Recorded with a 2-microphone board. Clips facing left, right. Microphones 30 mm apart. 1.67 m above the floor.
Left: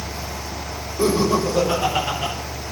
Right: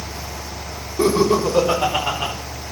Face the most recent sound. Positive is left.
turn(degrees=-70)  # may be behind; listen again after turning